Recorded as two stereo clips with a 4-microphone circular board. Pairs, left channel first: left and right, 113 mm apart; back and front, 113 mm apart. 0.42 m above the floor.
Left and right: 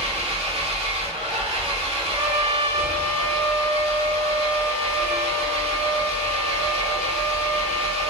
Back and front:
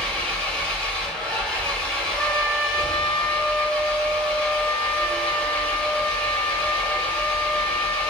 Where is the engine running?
100° right, 0.9 m.